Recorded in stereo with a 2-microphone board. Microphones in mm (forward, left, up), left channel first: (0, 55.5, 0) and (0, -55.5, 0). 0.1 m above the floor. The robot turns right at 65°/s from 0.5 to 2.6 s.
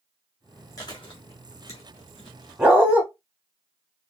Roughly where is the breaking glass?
No breaking glass in this recording.